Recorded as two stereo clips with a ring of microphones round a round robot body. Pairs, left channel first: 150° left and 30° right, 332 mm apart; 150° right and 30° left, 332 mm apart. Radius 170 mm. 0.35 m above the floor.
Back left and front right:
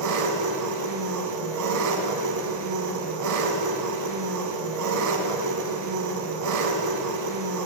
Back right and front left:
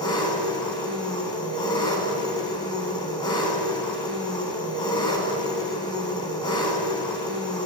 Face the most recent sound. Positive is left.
turn(degrees=-70)